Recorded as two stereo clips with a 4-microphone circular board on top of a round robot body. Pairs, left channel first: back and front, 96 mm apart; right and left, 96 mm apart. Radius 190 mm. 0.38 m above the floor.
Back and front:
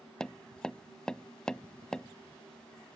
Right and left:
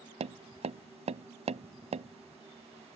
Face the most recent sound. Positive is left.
turn(degrees=100)